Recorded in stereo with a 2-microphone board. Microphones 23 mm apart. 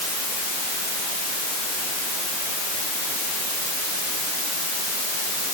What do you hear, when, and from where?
Only background noise.